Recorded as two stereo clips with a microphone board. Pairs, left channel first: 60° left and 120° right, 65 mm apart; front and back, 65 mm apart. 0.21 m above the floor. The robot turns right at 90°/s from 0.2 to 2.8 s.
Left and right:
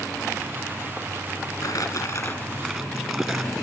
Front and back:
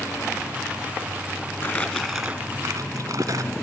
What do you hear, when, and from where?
1.6 s crumpling: 45° left, 2 m; by 3.5 s 155° left, 2 m